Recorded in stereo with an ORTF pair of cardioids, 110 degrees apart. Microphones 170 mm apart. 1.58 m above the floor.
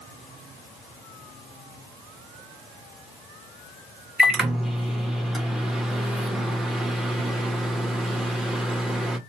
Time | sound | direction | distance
4.2 | a microwave | straight ahead | 0.7 m